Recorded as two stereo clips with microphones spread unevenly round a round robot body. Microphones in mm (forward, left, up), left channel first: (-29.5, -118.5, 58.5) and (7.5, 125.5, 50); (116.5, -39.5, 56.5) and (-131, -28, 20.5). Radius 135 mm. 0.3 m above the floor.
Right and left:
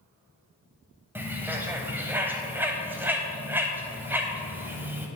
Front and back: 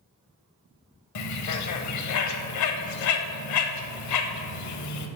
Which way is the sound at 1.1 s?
Straight ahead.